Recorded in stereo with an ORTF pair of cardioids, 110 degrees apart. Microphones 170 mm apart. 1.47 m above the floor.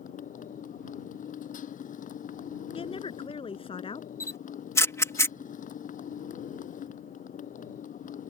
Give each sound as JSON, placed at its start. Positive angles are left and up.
{"t": 0.0, "sound": "a motorcycle", "azimuth_deg": 50}
{"t": 2.7, "sound": "a woman speaking", "azimuth_deg": 35}
{"t": 4.2, "sound": "a camera shutter", "azimuth_deg": 15}